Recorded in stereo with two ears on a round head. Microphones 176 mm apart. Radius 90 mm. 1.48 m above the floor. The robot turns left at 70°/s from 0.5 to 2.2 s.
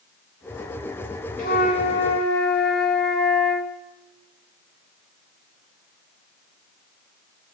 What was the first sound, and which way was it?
A flute, 120° left.